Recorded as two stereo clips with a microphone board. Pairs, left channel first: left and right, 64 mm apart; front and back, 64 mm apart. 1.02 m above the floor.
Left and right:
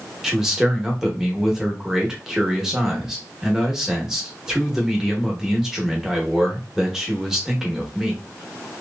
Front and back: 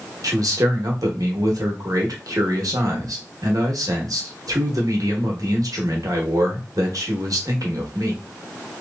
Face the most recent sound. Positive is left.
turn(degrees=-175)